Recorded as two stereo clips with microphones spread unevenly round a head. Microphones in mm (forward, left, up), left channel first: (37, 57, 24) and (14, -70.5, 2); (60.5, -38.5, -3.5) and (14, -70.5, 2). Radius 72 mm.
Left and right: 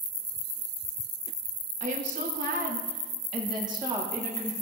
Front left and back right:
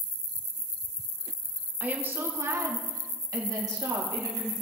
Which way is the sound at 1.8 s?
85° right.